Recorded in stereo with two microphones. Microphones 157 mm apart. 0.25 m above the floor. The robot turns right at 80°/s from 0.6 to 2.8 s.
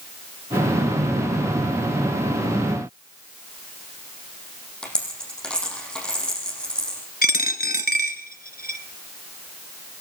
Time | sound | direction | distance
4.8 | a dropped coin | 5° left (ahead or behind) | 5 m
7.2 | a dropped coin | 75° left (ahead or behind) | 1.2 m